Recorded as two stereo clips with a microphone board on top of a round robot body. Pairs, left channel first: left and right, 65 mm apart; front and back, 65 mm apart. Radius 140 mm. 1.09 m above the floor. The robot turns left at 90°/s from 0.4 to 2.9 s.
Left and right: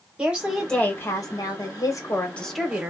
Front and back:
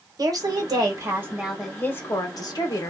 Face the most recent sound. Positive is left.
turn(degrees=-30)